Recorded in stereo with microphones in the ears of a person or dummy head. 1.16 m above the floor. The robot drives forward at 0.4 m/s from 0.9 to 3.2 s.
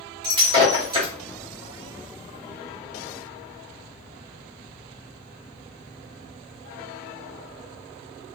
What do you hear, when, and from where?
0.2 s breaking glass: 25° right (ahead or behind), 1.5 m; by 1.1 s 30° right (ahead or behind), 1.4 m